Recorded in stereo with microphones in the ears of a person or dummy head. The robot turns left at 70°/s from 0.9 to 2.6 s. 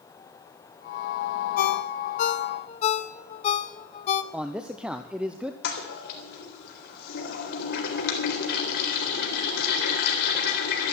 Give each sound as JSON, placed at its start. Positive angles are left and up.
{"t": 1.6, "sound": "a ringtone", "side_deg": 45, "distance_m": 0.9}
{"t": 4.3, "sound": "a man speaking", "side_deg": -5, "distance_m": 0.7}
{"t": 5.6, "sound": "a toilet flushing", "side_deg": 60, "distance_m": 3.5}